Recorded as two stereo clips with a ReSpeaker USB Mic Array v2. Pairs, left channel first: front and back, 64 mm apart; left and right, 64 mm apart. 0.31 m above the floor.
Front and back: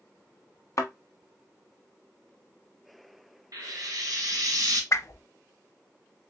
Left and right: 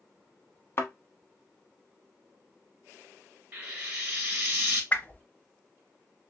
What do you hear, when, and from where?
0.8 s a thud: 40° left, 1.0 m
3.5 s frying: 150° right, 1.7 m
4.9 s a whoosh: 30° left, 0.6 m